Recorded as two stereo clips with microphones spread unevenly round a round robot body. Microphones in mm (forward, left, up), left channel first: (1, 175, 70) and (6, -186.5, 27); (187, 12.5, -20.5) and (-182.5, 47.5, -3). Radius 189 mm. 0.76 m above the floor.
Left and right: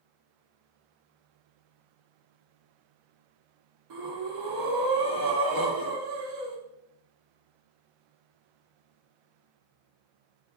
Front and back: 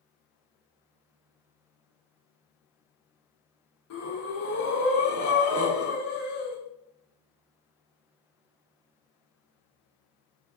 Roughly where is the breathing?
Ahead right.